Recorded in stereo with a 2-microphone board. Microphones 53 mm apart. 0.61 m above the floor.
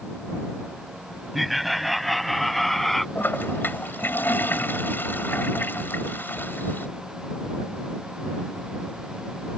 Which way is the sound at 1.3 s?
Centre (ahead or behind).